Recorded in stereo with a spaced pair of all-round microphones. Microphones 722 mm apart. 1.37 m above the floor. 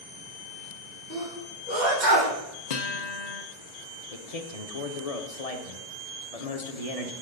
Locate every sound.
1.1 s a sneeze: 80° right, 1.8 m
2.7 s a guitar: 65° left (ahead or behind), 0.8 m
4.1 s a man speaking: 55° left (ahead or behind), 0.9 m